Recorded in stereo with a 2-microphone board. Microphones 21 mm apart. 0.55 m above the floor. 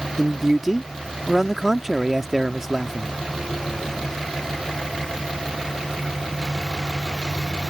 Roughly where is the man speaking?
Centre.